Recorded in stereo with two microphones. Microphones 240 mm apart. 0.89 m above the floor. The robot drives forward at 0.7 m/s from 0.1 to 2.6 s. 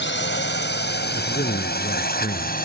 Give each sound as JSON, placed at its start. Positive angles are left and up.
{"t": 0.0, "sound": "a drone", "side_deg": 50}
{"t": 1.1, "sound": "a man speaking", "side_deg": 40}